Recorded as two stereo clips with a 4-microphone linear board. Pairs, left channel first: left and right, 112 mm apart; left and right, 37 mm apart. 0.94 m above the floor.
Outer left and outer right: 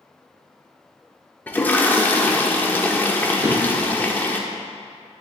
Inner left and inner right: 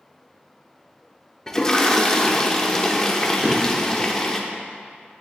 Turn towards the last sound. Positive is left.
turn(degrees=-50)  # may be behind; listen again after turning